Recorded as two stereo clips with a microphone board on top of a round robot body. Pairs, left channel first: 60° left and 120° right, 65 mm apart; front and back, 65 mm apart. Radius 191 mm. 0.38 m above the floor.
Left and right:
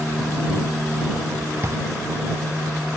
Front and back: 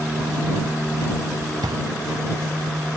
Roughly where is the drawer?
Behind.